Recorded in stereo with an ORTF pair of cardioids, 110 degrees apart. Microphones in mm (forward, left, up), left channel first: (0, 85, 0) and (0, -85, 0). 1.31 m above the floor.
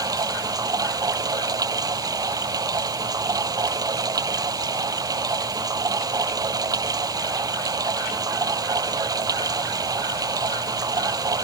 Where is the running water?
20° right.